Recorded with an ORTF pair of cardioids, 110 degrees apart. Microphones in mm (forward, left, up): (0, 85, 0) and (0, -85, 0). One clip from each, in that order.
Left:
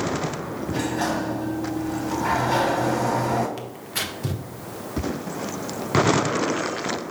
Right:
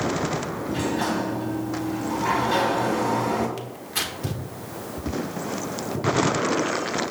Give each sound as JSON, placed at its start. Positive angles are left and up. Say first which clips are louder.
{"t": 0.7, "sound": "a sliding door", "louder": "left 1 dB", "azimuth_deg": 15, "distance_m": 1.4}
{"t": 3.6, "sound": "tearing paper", "louder": "even", "azimuth_deg": 0, "distance_m": 0.6}